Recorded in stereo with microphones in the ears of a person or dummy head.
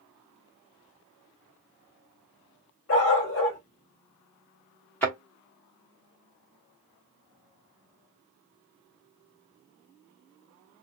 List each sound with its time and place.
2.9 s a dog barking: 50° left (ahead or behind), 1.4 m
5.0 s a thud: 5° left (ahead or behind), 1.1 m